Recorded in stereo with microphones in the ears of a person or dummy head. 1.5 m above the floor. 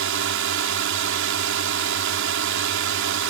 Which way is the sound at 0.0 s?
60° right (ahead or behind).